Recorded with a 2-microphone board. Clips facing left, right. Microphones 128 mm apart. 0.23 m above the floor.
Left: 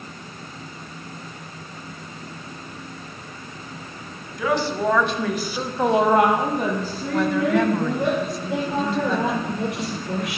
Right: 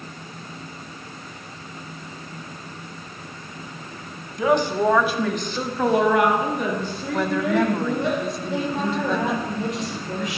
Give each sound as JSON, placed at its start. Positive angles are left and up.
{"t": 4.4, "sound": "a woman speaking", "side_deg": -25, "distance_m": 1.5}
{"t": 7.1, "sound": "a woman speaking", "side_deg": 0, "distance_m": 1.0}
{"t": 8.5, "sound": "a woman speaking", "side_deg": 65, "distance_m": 6.0}